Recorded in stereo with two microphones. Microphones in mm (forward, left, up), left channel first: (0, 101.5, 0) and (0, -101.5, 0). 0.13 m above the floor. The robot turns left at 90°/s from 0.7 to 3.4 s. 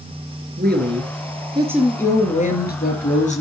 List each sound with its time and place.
0.6 s a woman speaking: 75° right, 2.5 m; by 3.4 s 40° left, 2.5 m